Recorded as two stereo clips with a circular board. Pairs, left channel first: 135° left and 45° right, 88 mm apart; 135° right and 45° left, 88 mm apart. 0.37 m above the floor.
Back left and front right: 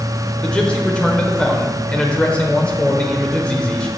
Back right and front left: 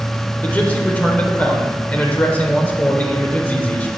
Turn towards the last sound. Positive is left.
turn(degrees=-170)